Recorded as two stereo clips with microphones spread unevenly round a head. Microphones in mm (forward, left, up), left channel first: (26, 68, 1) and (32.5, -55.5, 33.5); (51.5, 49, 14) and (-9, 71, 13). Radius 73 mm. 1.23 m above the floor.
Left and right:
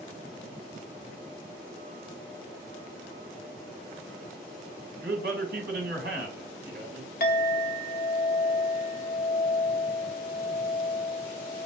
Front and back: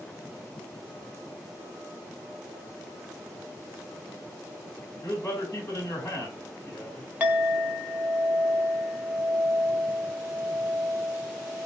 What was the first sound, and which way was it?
A man speaking, 100° right.